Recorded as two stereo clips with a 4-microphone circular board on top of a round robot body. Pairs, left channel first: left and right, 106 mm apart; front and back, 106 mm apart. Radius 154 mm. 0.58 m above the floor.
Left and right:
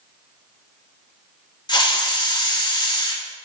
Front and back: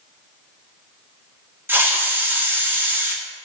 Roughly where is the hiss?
Behind left.